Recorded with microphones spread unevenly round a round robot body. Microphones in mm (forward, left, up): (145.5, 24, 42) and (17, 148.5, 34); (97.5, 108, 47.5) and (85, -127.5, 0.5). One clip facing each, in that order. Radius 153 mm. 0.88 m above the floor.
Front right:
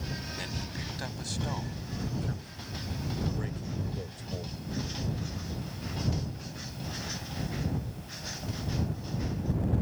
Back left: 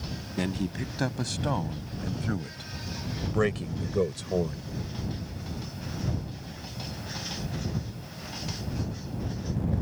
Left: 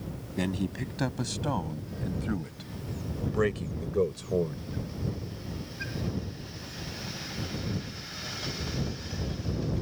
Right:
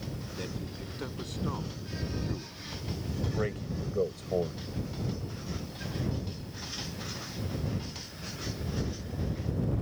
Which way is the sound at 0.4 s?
110° left.